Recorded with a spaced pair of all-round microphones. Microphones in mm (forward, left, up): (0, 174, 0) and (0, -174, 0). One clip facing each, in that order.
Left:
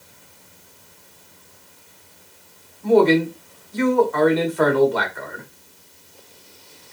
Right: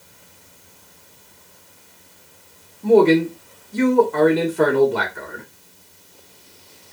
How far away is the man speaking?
About 1.0 m.